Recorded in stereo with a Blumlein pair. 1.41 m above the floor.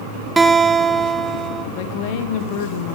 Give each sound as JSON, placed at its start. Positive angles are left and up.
{"t": 0.4, "sound": "a guitar", "azimuth_deg": -10, "distance_m": 1.2}
{"t": 1.8, "sound": "a woman speaking", "azimuth_deg": 45, "distance_m": 1.7}